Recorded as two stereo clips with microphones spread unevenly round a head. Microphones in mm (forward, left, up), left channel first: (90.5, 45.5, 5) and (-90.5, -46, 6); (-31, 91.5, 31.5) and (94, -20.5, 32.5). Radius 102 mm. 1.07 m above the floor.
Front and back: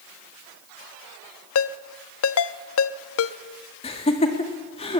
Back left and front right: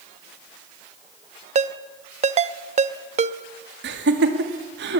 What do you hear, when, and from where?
1.6 s a ringtone: 10° left, 0.8 m
3.8 s laughter: 35° right, 2.5 m